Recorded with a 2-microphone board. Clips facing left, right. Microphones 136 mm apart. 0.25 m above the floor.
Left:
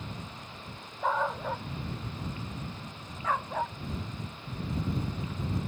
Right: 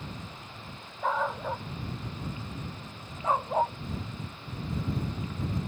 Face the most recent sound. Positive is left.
turn(degrees=-35)  # may be behind; listen again after turning